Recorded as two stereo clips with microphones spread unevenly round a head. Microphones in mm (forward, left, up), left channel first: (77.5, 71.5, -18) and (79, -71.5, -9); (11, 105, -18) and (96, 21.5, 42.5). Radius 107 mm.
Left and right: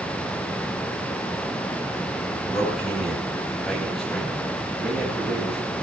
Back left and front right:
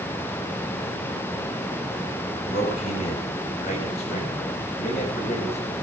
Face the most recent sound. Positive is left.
turn(degrees=180)